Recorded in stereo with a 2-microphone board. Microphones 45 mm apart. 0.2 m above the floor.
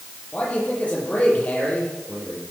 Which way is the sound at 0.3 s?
35° left (ahead or behind).